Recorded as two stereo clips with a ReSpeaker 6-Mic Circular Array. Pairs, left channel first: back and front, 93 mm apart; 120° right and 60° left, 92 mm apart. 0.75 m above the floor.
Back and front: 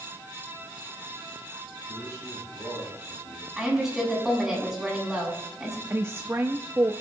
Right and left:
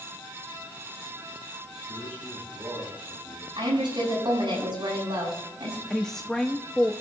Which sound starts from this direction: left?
A woman speaking, at 3.6 s.